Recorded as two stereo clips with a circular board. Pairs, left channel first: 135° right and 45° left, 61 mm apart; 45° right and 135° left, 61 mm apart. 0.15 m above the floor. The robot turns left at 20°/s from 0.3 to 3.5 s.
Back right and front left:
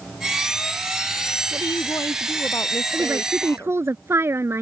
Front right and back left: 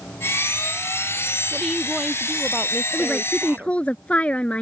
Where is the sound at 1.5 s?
130° right; by 3.8 s 170° right.